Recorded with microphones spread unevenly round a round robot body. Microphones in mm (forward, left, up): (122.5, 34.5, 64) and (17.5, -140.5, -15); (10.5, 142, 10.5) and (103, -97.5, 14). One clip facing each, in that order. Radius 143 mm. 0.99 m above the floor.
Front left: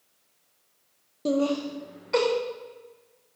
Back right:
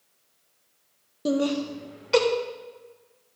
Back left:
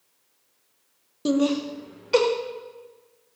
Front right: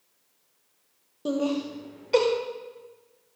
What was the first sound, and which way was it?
Laughter, 170° left.